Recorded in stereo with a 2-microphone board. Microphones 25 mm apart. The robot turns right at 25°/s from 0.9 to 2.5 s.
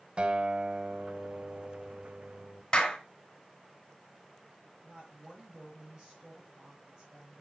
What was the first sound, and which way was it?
A guitar, 55° right.